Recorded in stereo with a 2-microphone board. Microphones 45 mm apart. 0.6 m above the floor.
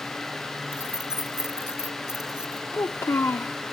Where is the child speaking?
65° left (ahead or behind).